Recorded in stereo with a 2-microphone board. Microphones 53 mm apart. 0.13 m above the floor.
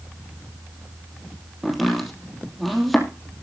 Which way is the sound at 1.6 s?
Centre (ahead or behind).